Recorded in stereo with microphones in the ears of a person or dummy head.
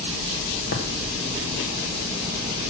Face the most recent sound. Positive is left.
turn(degrees=45)  # may be behind; listen again after turning